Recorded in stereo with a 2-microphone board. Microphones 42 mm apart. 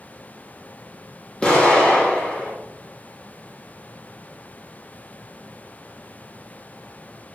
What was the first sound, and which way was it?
An explosion, 25° left (ahead or behind).